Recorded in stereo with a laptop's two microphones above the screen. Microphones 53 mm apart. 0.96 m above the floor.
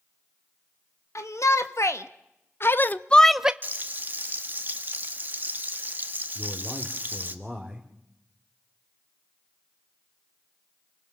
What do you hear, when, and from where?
1.1 s a shout: 70° left (ahead or behind), 1.7 m; by 3.5 s 15° right (ahead or behind), 0.5 m
3.6 s frying: 35° right (ahead or behind), 1.7 m
6.3 s a man speaking: centre (ahead or behind), 2.5 m